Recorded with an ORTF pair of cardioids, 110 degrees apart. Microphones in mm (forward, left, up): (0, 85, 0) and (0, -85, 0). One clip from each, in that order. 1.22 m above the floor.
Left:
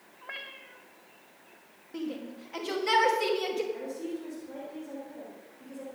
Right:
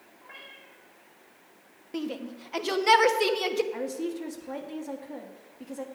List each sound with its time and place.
0.2 s a cat meowing: 65° left, 1.6 m
1.9 s a shout: 35° right, 1.4 m
3.7 s a woman speaking: 60° right, 1.7 m